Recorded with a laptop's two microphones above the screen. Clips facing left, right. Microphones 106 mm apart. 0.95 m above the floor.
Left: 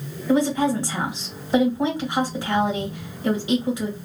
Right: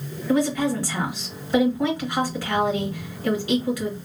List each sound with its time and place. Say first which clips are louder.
0.3 s a woman speaking: left 2 dB; 20° left (ahead or behind), 1.6 m